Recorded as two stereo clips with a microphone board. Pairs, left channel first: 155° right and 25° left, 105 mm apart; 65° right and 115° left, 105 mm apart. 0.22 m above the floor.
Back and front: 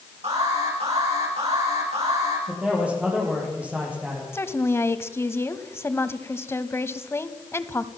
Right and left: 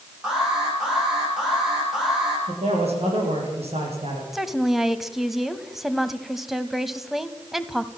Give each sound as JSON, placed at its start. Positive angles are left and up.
{"t": 0.2, "sound": "an alarm", "azimuth_deg": 30, "distance_m": 9.5}
{"t": 2.5, "sound": "a man speaking", "azimuth_deg": 100, "distance_m": 8.0}
{"t": 4.3, "sound": "a woman speaking", "azimuth_deg": -165, "distance_m": 1.0}